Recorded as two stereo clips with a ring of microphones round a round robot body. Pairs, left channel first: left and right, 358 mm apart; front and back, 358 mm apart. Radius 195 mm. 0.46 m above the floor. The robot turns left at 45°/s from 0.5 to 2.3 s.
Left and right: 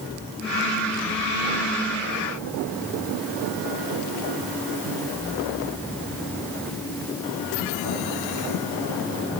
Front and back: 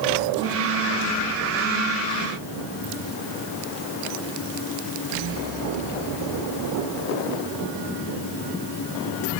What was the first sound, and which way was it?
Only background noise.